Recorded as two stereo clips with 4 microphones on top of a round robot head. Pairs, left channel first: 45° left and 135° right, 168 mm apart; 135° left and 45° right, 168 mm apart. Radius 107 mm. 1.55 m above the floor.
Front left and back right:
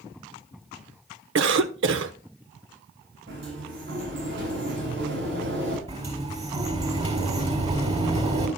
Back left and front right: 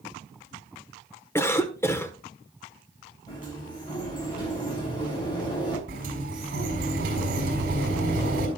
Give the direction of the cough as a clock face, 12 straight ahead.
5 o'clock.